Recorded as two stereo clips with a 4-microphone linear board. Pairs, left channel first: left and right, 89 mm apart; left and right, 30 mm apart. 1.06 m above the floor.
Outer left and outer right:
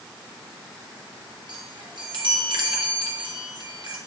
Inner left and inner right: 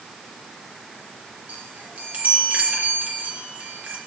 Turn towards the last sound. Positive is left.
turn(degrees=-60)  # may be behind; listen again after turning